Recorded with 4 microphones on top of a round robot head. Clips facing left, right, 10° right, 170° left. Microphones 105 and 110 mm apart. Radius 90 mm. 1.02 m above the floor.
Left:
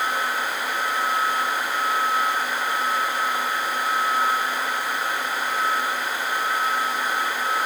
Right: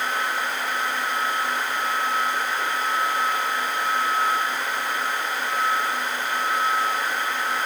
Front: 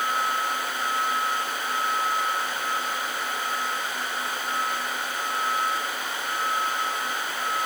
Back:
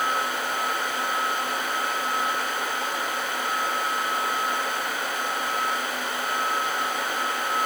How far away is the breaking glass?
No breaking glass in this recording.